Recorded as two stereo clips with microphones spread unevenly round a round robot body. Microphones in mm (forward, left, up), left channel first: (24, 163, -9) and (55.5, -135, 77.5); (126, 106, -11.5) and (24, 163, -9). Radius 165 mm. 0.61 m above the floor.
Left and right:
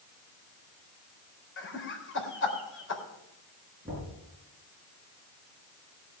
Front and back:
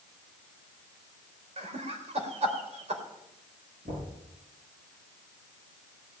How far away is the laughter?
About 3 m.